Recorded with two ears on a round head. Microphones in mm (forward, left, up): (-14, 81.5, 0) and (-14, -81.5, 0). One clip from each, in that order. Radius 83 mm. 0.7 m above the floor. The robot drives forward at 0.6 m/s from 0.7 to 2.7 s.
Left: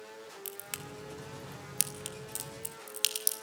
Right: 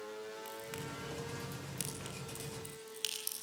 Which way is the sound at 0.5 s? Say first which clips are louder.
Even; 70° left (ahead or behind).